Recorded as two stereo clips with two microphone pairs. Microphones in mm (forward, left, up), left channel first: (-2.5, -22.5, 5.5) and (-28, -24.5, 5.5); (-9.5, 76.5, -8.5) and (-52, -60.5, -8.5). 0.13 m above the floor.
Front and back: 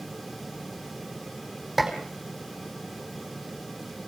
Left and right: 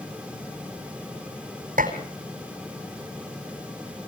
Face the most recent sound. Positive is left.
turn(degrees=-90)